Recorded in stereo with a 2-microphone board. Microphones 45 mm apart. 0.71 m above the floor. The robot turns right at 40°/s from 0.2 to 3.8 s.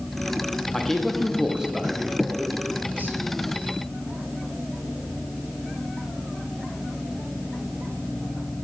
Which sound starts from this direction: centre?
A man speaking, at 0.7 s.